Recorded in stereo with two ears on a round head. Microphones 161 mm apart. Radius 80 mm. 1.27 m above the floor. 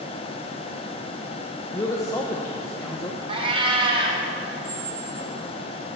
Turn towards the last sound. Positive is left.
turn(degrees=-55)  # may be behind; listen again after turning